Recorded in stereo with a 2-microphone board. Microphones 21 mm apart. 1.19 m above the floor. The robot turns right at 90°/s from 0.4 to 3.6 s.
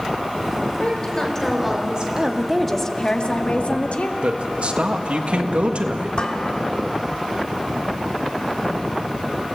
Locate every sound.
0.8 s a woman speaking: 110° left, 4 m; by 2.1 s 140° right, 4 m
2.2 s a woman speaking: 40° right, 1.8 m; by 4.1 s 90° left, 1.8 m
4.2 s a man speaking: 75° right (ahead or behind), 1.7 m
6.2 s dishes clattering: 60° left (ahead or behind), 1.9 m